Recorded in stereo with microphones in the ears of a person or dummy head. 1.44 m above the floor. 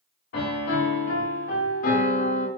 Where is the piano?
45° left (ahead or behind), 1.0 m.